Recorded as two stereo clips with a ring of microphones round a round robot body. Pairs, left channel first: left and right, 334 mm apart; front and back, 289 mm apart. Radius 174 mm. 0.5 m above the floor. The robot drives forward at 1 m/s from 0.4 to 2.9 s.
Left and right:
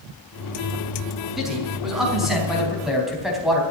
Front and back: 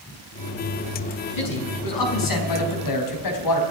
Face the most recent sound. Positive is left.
turn(degrees=0)